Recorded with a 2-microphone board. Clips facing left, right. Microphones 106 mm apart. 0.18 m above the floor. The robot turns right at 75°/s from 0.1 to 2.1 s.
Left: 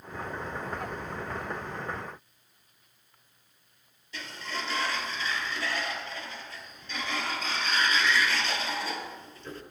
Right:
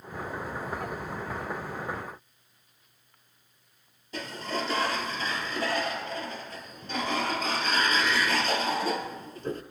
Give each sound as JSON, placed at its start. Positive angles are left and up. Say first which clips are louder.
{"t": 4.1, "sound": "a sliding door", "louder": "right 5 dB", "side_deg": -45, "distance_m": 0.7}